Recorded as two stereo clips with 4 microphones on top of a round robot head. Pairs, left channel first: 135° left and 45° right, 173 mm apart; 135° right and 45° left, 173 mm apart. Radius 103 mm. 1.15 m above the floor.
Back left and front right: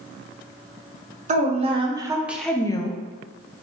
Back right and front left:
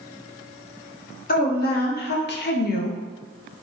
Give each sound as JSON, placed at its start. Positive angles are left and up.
{"t": 1.3, "sound": "a woman speaking", "azimuth_deg": -95, "distance_m": 0.9}